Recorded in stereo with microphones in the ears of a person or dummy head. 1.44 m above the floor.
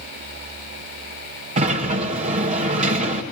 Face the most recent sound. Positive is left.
turn(degrees=-40)  # may be behind; listen again after turning